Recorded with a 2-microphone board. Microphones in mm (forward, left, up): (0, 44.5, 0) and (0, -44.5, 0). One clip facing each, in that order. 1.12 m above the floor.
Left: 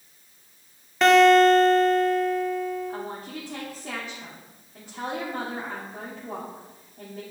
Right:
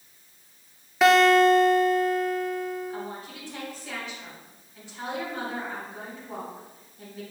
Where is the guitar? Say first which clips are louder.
Left 2 dB; 5° right (ahead or behind), 0.9 m.